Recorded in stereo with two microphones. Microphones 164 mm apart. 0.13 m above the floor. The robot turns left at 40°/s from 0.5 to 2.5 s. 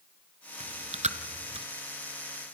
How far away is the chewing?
About 0.9 m.